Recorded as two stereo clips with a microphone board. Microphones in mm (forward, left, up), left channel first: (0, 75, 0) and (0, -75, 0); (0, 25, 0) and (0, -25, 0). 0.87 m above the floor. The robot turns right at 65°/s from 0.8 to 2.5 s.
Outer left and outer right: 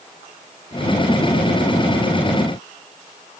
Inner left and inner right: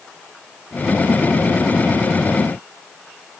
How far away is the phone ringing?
I don't hear a phone ringing.